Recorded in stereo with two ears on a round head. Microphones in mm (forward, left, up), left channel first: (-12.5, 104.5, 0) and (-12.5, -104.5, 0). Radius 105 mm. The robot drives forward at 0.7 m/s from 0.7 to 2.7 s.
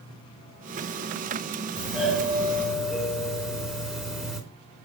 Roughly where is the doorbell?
Centre.